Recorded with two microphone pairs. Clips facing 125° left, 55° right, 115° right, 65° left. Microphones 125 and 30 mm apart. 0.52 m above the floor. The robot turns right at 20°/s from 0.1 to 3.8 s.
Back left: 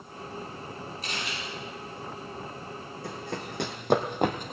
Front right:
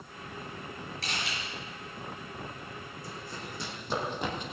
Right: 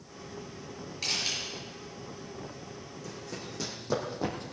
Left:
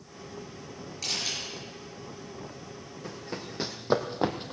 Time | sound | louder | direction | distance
1.0 | a camera shutter | even, right 1 dB | 45° right | 6.5 m
3.0 | running footsteps | back left 8 dB, left 4 dB | 105° left | 1.8 m